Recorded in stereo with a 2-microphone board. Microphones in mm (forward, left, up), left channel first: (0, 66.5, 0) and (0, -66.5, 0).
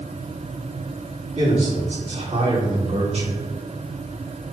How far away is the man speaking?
About 3 m.